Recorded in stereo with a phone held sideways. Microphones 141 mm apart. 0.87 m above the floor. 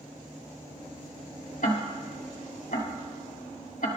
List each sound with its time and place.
1.6 s ticking: 70° left (ahead or behind), 2.5 m